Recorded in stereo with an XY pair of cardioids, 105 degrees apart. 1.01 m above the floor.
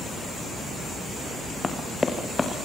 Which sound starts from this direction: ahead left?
Running footsteps, at 1.6 s.